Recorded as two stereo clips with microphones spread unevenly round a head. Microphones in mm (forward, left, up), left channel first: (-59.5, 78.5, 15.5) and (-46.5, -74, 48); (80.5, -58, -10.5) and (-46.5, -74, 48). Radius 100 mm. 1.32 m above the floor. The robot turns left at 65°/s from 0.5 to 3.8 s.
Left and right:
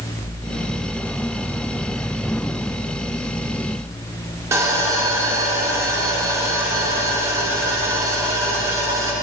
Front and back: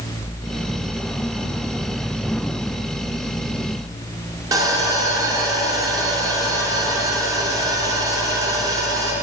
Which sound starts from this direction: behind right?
Sawing, at 4.5 s.